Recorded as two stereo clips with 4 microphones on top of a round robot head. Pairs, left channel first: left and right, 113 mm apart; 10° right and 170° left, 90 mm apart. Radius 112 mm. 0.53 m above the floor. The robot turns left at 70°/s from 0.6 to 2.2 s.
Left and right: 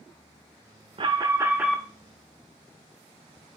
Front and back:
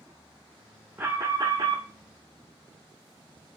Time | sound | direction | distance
1.0 | an alarm | 125° right | 0.7 m